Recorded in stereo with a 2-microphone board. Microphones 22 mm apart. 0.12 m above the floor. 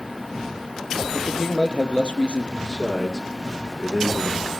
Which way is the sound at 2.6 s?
30° right (ahead or behind).